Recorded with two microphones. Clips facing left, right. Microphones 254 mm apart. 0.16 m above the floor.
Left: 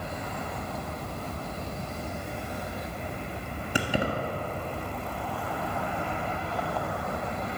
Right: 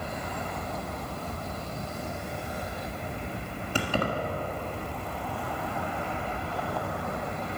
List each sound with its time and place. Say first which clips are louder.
3.8 s keys jangling: left 1 dB; 15° left (ahead or behind), 1.5 m